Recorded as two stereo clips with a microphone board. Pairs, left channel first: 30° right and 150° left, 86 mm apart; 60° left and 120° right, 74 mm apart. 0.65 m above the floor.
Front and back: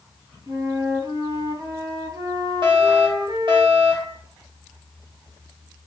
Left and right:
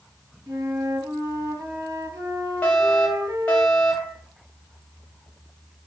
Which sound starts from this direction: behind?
A flute, at 0.5 s.